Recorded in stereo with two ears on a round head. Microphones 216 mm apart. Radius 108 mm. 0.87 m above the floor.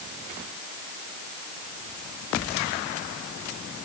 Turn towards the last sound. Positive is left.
No sound to turn to.